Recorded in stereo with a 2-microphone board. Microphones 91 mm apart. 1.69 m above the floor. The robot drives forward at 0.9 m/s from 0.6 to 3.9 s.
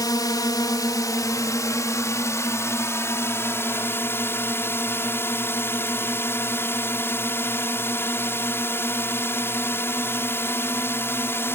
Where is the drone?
45° left (ahead or behind); by 11.6 s 25° left (ahead or behind).